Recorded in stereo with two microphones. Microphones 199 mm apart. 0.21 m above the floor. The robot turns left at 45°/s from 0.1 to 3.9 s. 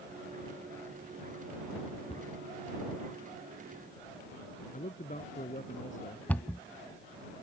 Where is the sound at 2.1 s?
30° left (ahead or behind); by 2.3 s 25° left (ahead or behind).